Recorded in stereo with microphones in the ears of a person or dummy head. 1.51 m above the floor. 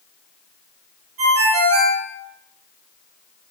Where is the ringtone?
45° right (ahead or behind), 0.6 m.